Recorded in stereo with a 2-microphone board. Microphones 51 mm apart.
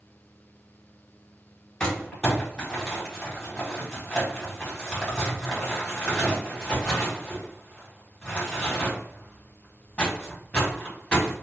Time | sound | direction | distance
1.8 | crumpling | 15° left (ahead or behind) | 2 m